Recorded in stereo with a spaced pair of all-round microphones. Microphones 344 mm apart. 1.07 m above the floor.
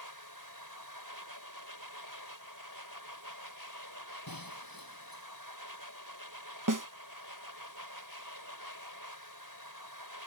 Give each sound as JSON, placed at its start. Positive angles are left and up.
{"t": 0.0, "sound": "a machine running", "side_deg": -85}
{"t": 4.3, "sound": "breaking glass", "side_deg": 80}
{"t": 6.7, "sound": "a snare drum", "side_deg": -60}